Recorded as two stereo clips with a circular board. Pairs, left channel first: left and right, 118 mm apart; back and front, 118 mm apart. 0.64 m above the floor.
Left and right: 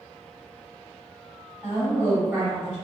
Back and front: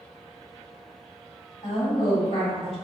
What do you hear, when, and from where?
1.6 s a woman speaking: 165° right, 1.8 m